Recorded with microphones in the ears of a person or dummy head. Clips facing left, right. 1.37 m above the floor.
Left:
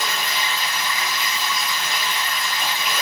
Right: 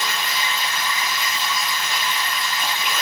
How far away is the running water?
About 1.0 m.